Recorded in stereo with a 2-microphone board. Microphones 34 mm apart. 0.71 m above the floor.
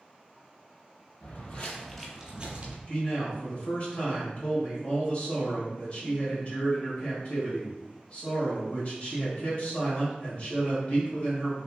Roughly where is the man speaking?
Left.